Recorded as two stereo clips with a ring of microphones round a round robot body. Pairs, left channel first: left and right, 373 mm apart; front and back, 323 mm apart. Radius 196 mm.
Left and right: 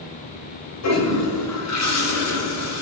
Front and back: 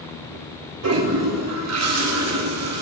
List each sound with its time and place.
0.8 s a toilet flushing: 140° left, 3 m